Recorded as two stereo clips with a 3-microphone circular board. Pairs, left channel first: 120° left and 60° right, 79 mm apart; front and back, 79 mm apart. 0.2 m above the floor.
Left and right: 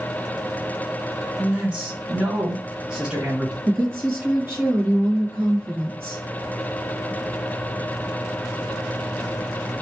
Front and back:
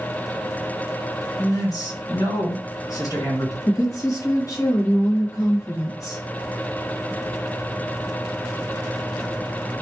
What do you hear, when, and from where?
1.4 s a man speaking: 15° left, 2 m
3.7 s a woman speaking: 10° right, 1.4 m